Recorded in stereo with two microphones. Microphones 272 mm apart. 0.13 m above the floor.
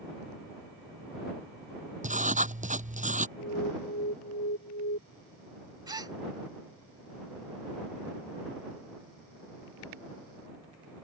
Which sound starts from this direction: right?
Writing, at 2.0 s.